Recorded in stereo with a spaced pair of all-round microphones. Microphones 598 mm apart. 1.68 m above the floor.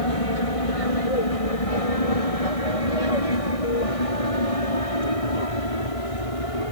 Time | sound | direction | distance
0.0 | an aircraft | 65° left (ahead or behind) | ?